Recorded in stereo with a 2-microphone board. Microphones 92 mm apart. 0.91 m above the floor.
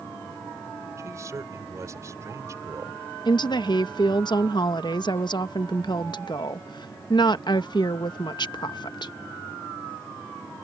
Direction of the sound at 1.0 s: 35° right (ahead or behind).